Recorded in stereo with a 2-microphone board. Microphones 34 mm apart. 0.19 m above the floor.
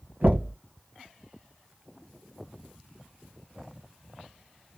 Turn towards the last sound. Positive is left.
turn(degrees=-60)  # may be behind; listen again after turning